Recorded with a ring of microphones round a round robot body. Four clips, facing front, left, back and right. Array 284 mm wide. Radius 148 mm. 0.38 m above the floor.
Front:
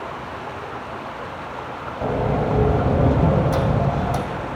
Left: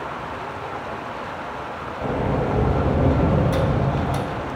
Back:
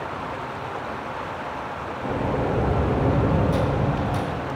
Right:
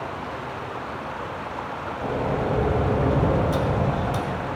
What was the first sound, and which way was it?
A sliding door, 20° left.